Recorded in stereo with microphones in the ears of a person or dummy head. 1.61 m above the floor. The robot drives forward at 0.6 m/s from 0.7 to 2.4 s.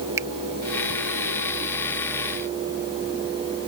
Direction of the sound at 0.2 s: 15° right (ahead or behind).